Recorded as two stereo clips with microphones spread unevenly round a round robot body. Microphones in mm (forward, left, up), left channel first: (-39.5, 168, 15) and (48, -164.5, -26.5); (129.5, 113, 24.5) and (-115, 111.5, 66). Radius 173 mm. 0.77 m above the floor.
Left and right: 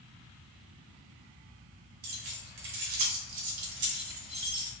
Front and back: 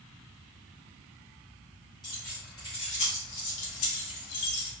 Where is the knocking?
No knocking in this recording.